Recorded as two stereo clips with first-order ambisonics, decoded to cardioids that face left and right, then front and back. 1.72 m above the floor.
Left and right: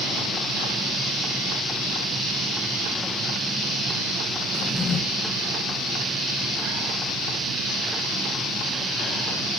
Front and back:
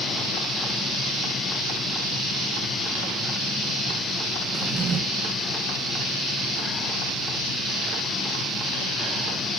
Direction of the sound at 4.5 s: 155° left.